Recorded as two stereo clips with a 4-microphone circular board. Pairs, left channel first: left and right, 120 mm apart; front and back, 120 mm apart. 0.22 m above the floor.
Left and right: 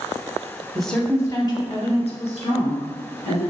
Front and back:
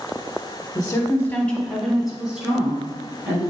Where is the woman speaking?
5° right, 1.4 m; by 3.5 s 105° left, 4 m.